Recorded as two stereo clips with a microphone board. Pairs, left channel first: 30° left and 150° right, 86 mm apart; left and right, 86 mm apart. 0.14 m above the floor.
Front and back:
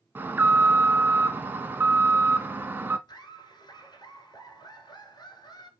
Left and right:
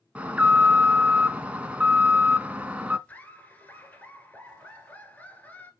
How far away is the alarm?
About 0.9 m.